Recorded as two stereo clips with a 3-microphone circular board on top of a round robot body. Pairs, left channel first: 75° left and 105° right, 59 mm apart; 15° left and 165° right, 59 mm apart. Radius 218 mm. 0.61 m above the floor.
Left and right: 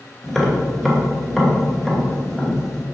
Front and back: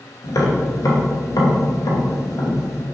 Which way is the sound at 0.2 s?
10° right.